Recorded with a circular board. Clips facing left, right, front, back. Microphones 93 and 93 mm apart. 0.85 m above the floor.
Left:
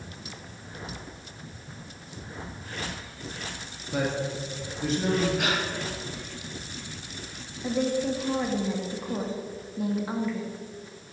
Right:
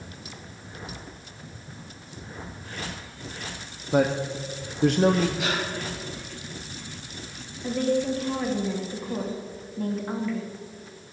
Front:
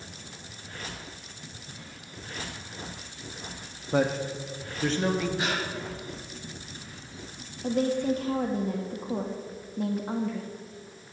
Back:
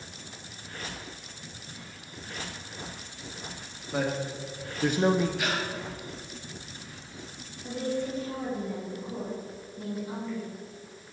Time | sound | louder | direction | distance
3.9 | a man speaking | right 6 dB, front 4 dB | 45° right | 1.0 m
5.4 | breathing | even, front 1 dB | 60° left | 5.5 m
7.6 | a woman speaking | right 2 dB, front 6 dB | 10° left | 1.8 m